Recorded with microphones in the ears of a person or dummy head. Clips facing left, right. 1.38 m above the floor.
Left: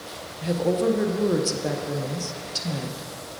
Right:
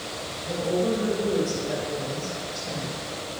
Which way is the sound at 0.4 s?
75° left (ahead or behind).